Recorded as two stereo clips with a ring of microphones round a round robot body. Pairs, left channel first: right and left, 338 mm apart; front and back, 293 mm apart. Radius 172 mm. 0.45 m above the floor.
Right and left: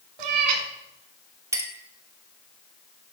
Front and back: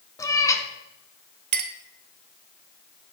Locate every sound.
0.2 s a cat meowing: 80° left, 1.3 m
1.5 s a clink: 170° left, 0.9 m